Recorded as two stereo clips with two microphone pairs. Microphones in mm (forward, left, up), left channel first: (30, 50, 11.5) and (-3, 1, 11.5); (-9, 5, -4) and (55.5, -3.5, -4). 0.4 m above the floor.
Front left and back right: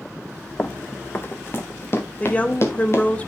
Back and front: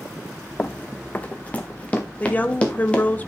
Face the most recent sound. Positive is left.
turn(degrees=115)